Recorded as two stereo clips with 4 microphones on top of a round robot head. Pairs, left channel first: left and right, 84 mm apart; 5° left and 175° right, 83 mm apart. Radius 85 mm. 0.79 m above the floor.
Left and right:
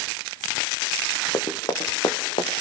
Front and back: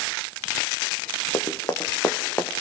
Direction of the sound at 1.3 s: 45° left.